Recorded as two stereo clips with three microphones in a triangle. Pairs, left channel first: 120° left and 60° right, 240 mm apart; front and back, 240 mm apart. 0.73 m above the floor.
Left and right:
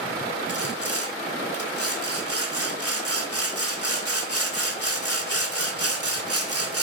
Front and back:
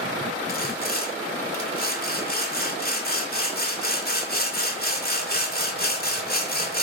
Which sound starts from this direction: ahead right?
Sawing, at 0.5 s.